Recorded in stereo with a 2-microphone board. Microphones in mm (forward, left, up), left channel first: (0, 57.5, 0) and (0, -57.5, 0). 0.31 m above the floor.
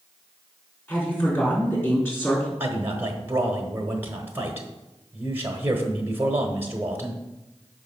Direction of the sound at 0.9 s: 20° left (ahead or behind).